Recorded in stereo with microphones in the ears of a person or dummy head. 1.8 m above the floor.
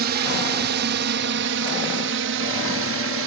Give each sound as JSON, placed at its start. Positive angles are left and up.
{"t": 0.0, "sound": "a drone", "side_deg": -65}